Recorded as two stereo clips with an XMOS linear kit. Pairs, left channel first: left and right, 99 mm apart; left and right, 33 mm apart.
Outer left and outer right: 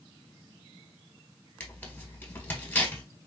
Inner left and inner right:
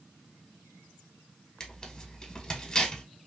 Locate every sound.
1.6 s tearing paper: 20° left (ahead or behind), 1.4 m